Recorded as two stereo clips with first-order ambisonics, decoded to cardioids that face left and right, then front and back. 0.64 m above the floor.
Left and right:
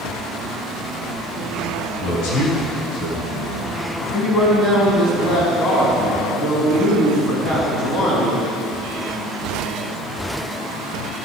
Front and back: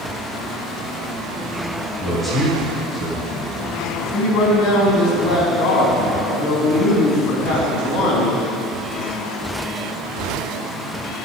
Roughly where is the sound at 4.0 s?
Ahead left.